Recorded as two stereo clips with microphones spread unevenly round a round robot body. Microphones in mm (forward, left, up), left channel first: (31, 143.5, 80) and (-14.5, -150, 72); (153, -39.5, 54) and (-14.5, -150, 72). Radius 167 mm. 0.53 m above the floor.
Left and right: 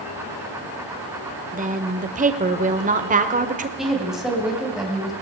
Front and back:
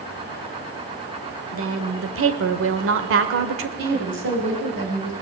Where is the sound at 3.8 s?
175° left, 4 m.